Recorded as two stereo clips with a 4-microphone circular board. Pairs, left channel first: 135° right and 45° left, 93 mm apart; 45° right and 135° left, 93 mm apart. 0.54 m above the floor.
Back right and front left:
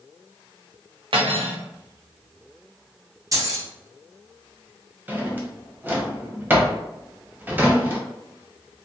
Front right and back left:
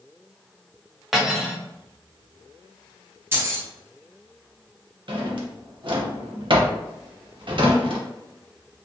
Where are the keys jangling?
80° left, 0.7 m.